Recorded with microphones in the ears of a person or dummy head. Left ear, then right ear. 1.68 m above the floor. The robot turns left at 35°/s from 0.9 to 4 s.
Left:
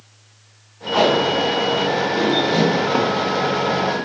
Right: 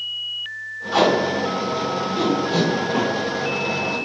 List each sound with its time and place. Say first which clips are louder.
0.9 s tape being pulled: left 2 dB; 60° right (ahead or behind), 2 m; by 3.9 s 15° left (ahead or behind), 2 m
2.9 s a cupboard door: left 3 dB; 30° left (ahead or behind), 0.8 m; by 3.1 s 35° left (ahead or behind), 0.8 m